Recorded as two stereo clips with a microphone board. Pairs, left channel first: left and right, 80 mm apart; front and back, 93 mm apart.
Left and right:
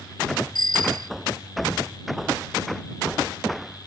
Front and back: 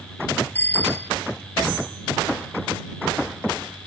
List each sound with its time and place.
0.6 s a bicycle bell: 70° left